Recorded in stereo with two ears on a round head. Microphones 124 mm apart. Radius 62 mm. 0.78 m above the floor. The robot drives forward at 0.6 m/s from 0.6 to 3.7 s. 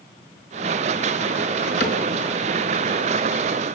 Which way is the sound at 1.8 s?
70° left (ahead or behind).